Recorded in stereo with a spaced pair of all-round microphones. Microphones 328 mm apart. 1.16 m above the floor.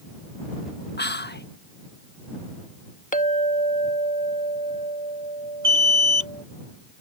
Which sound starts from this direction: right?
An alarm, at 5.6 s.